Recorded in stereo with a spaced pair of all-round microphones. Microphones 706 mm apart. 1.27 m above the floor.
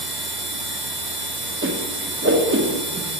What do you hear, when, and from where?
0.0 s a machine running: 60° right (ahead or behind), 1.0 m
1.6 s a whoosh: 20° right (ahead or behind), 0.7 m